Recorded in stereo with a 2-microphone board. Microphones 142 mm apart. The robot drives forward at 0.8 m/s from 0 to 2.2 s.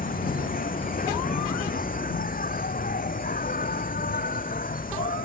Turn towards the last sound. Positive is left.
turn(degrees=85)